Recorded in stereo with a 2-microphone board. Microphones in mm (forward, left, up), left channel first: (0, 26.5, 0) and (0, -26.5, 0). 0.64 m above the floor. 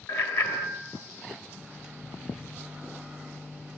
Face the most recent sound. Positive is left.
turn(degrees=-15)  # may be behind; listen again after turning